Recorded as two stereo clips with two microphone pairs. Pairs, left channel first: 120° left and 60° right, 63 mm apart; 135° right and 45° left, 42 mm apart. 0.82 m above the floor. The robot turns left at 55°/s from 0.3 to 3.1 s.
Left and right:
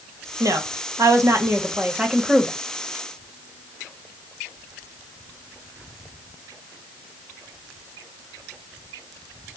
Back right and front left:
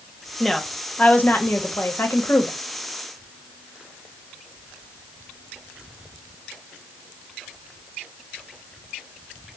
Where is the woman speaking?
45° right, 0.9 m; by 2.6 s 165° right, 0.9 m.